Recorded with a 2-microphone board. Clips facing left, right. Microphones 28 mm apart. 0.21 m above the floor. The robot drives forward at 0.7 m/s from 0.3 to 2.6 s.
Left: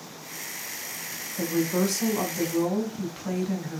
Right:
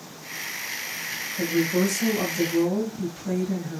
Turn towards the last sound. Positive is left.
turn(degrees=40)  # may be behind; listen again after turning